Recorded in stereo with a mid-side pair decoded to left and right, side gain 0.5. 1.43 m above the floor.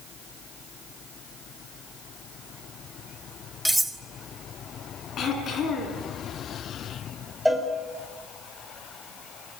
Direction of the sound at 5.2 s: 55° left.